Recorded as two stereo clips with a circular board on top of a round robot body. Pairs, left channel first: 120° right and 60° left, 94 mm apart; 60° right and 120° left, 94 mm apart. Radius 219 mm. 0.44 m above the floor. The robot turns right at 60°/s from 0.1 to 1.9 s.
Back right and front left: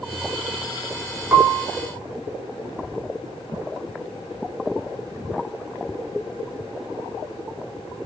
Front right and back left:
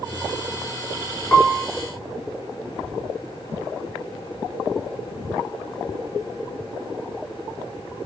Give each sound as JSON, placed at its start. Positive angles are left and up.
{"t": 1.3, "sound": "a piano", "azimuth_deg": -5, "distance_m": 0.9}